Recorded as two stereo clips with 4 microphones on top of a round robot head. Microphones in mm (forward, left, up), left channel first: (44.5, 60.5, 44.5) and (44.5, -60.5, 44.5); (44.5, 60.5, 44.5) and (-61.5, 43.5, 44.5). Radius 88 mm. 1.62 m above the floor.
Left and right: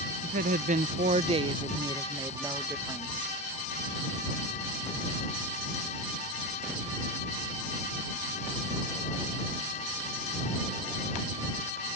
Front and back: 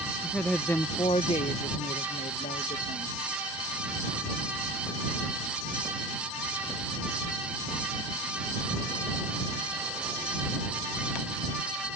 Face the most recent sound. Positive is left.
turn(degrees=-10)